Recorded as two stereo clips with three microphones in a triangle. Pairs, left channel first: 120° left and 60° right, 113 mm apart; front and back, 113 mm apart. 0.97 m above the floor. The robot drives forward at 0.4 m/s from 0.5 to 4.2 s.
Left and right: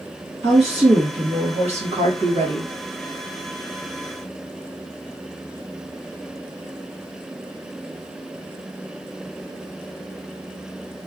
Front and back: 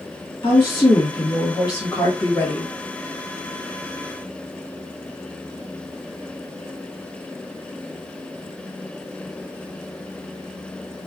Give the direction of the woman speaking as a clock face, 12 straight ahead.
1 o'clock.